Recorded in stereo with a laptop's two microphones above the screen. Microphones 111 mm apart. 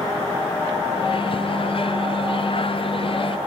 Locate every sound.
0.9 s a microwave: 50° left (ahead or behind), 0.7 m